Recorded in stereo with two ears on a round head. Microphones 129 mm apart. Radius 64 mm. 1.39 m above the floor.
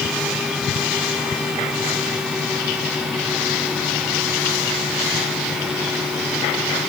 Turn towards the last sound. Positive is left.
No sound to turn to.